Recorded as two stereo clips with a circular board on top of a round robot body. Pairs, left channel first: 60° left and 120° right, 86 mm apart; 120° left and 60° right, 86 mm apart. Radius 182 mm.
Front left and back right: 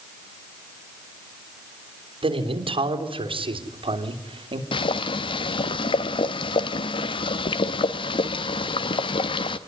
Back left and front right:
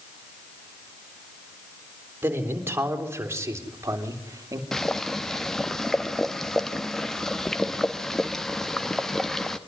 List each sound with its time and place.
2.2 s a man speaking: 130° right, 3.5 m; by 4.6 s 115° right, 2.5 m
4.7 s boiling: 35° left, 0.7 m